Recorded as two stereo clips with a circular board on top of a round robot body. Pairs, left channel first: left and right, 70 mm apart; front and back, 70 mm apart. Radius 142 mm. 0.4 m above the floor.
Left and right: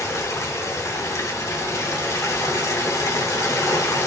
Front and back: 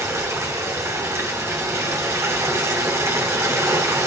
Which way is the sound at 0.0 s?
135° left.